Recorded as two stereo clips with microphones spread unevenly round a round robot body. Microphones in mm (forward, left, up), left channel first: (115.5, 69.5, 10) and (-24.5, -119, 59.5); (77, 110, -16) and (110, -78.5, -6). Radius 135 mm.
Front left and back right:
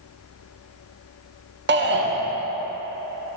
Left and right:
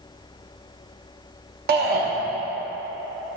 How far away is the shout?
About 1.2 m.